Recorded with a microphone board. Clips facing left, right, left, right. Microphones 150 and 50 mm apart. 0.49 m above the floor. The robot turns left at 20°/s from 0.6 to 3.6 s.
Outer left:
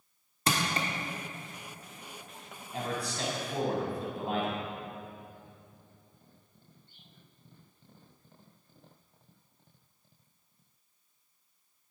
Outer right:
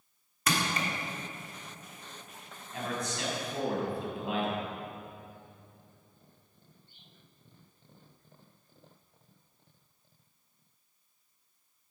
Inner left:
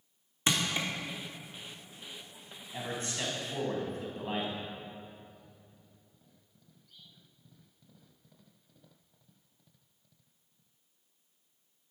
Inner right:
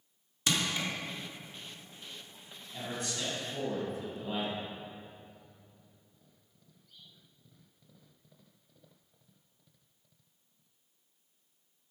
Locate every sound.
0.5 s crushing: 30° left (ahead or behind), 1.3 m
2.7 s a man speaking: 30° left (ahead or behind), 3.5 m; by 4.6 s 45° left (ahead or behind), 3.5 m